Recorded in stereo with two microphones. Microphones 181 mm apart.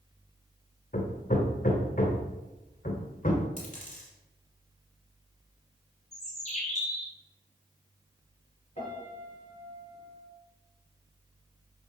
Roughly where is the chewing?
No chewing in this recording.